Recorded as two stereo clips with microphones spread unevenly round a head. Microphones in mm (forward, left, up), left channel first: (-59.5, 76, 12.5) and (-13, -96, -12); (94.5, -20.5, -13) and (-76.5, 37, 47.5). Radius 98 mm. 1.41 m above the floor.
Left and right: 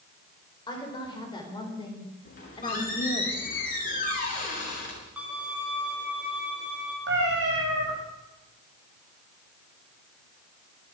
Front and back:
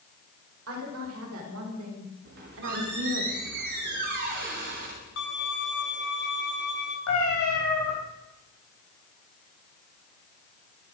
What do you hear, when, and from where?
0.7 s a woman speaking: 170° left, 5 m; by 3.2 s 165° left, 3 m
2.2 s a squeak: 145° left, 5.5 m
5.2 s a violin: 10° left, 3 m
7.1 s a cat meowing: 35° right, 5.5 m